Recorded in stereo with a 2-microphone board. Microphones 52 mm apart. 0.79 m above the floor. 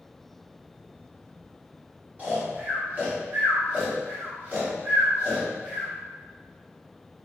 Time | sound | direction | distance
2.2 | snoring | 35° right (ahead or behind) | 1.8 m